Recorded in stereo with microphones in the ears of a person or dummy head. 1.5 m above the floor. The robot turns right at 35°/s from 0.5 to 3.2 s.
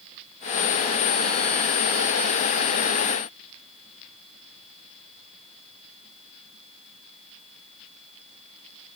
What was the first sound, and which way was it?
Only background noise.